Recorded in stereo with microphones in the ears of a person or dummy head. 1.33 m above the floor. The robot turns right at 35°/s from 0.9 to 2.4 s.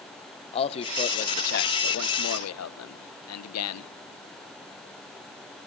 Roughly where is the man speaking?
Ahead left.